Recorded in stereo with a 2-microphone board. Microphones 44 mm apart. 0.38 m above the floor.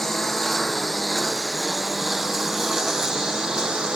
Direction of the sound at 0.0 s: 5° left (ahead or behind).